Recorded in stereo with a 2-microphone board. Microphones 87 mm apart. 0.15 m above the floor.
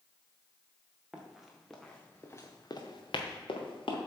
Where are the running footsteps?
10° right (ahead or behind), 1.6 m; by 4.0 s 80° left, 1.4 m.